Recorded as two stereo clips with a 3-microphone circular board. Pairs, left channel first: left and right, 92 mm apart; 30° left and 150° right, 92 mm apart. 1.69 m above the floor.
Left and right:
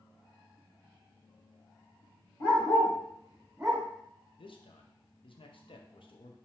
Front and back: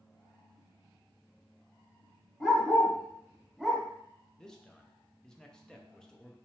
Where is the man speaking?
110° left, 0.7 m.